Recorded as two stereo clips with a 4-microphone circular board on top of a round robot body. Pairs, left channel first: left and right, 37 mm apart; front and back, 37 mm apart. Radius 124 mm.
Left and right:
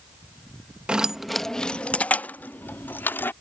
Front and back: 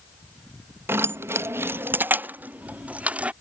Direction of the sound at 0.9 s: 160° right.